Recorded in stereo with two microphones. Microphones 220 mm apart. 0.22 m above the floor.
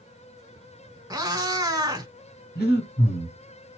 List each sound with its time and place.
1.1 s a cat meowing: 15° right (ahead or behind), 0.7 m
2.5 s breathing: 45° left (ahead or behind), 2 m